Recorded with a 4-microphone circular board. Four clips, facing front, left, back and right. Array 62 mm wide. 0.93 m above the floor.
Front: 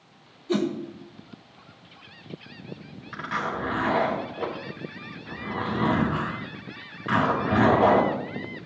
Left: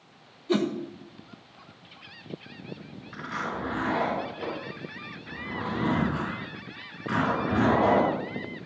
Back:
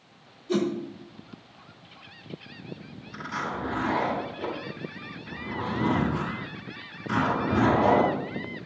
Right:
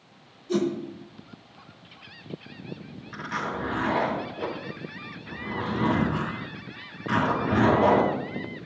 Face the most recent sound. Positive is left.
turn(degrees=-5)